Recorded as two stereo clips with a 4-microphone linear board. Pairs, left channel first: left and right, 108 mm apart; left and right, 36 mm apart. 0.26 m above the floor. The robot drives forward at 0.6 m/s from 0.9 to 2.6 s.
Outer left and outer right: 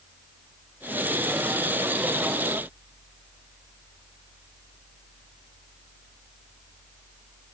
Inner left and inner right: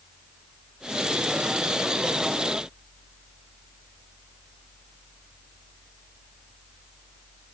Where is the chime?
I don't hear a chime.